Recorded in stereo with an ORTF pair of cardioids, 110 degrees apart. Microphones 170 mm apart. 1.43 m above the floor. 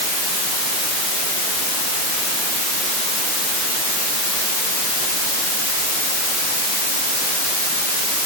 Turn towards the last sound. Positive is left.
No sound to turn to.